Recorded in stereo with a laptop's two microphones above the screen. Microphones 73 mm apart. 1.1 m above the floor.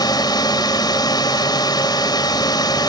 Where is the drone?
65° left (ahead or behind).